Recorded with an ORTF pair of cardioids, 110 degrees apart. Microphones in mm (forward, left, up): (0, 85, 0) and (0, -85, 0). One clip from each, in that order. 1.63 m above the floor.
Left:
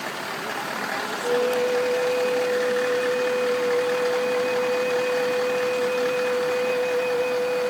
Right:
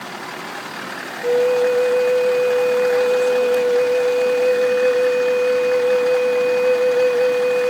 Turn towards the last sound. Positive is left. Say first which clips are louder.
# right 7 dB
turn(degrees=-40)